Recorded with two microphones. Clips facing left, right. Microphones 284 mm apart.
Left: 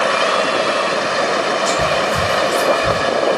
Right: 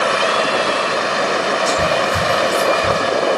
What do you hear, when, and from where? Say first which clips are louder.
1.7 s whispering: even; centre (ahead or behind), 1.6 m